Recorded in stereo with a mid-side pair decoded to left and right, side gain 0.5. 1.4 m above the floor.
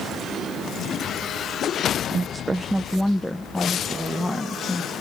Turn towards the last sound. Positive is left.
turn(degrees=25)